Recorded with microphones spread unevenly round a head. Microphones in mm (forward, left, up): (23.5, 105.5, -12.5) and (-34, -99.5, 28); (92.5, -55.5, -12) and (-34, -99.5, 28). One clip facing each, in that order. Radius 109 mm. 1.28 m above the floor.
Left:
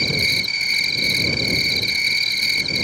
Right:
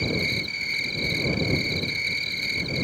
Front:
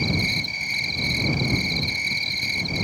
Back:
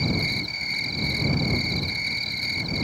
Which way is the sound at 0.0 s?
100° left.